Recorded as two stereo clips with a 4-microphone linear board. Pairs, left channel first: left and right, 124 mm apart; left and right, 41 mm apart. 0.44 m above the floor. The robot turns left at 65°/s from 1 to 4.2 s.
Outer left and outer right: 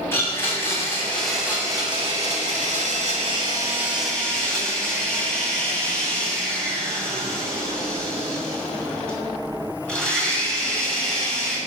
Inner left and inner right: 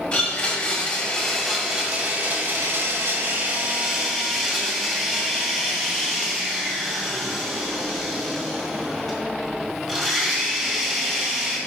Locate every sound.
0.1 s a blender: 20° left, 2.5 m; by 11.6 s 170° left, 2.5 m